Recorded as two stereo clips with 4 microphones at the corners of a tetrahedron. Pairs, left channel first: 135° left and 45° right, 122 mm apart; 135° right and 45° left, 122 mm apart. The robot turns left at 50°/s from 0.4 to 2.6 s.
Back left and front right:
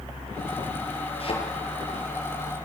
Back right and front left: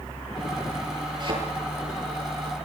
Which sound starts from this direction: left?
A thud, at 1.2 s.